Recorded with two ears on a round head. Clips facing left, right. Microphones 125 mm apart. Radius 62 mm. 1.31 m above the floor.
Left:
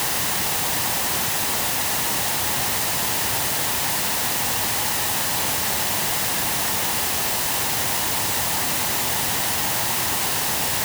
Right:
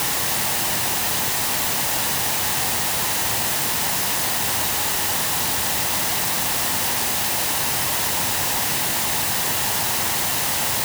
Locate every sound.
Only background noise.